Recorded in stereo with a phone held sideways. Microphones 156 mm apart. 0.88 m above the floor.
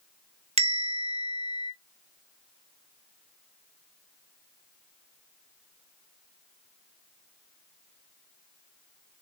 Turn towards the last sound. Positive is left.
turn(degrees=-40)  # may be behind; listen again after turning